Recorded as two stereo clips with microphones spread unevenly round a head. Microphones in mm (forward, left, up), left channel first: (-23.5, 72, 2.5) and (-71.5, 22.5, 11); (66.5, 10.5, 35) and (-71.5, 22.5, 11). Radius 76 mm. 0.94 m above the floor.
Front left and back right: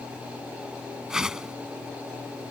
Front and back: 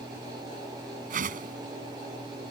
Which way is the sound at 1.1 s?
145° left.